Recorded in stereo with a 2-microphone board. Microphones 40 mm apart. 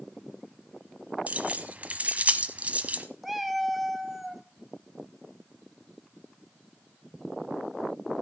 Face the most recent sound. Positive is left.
turn(degrees=-5)  # may be behind; listen again after turning